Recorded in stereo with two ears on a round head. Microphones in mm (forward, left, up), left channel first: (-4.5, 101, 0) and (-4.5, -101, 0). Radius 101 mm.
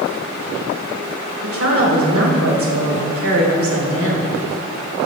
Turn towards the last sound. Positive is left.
turn(degrees=-70)  # may be behind; listen again after turning